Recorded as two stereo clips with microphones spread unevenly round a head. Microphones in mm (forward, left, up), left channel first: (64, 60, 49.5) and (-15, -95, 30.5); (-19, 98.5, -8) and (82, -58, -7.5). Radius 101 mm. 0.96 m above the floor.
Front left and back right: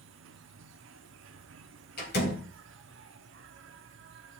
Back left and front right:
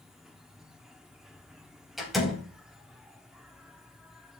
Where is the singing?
I don't hear singing.